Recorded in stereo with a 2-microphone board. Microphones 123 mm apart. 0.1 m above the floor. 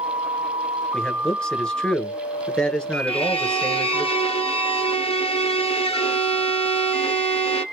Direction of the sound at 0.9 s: 5° left (ahead or behind).